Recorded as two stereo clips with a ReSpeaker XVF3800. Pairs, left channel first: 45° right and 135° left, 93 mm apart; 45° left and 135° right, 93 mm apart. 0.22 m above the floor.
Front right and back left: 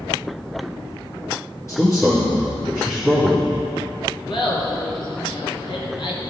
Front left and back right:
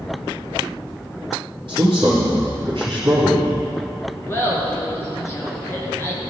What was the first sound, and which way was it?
A man speaking, 105° right.